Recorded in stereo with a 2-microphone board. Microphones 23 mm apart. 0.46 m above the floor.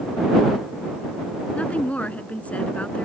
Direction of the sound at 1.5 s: 80° left.